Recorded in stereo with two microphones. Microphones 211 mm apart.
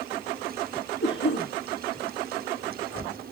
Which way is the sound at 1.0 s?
65° left (ahead or behind).